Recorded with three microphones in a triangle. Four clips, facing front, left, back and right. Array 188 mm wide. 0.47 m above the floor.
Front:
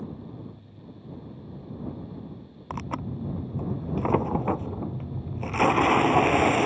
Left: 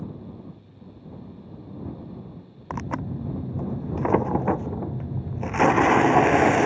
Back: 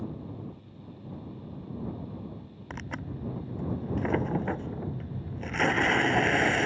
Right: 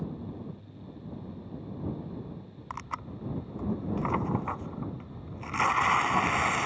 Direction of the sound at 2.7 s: 70° left.